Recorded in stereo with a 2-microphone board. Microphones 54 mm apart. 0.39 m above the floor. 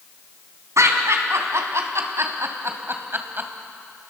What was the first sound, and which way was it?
Laughter, 70° right (ahead or behind).